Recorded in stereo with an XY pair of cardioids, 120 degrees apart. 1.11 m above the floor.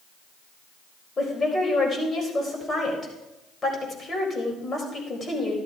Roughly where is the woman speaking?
Ahead left.